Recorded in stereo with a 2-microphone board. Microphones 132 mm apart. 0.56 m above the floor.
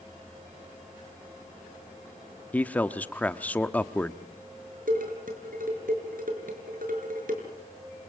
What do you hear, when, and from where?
2.5 s a man speaking: 10° left (ahead or behind), 1.0 m
4.9 s dishes clattering: 75° right (ahead or behind), 6 m